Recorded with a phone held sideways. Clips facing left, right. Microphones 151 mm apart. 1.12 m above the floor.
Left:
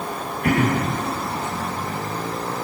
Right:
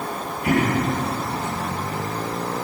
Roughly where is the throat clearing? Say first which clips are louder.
Even; left.